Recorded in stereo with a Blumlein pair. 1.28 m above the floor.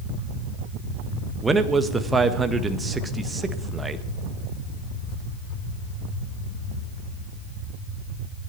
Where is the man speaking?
15° right, 1.5 m.